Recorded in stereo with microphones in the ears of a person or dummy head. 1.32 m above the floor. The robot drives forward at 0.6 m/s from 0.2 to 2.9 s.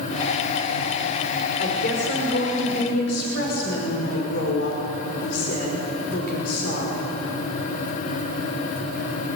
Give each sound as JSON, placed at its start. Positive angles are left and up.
{"t": 1.6, "sound": "a woman speaking", "side_deg": 60, "distance_m": 5.5}